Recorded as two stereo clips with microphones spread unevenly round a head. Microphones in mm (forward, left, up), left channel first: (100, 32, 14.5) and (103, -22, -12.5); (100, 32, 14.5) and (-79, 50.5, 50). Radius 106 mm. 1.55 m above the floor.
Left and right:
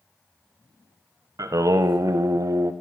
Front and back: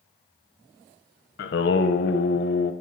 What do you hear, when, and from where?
1.4 s singing: 50° right, 0.7 m